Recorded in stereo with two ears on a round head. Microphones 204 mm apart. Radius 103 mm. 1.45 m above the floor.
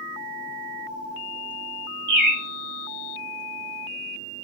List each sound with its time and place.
2.1 s a bird: 80° right, 2.5 m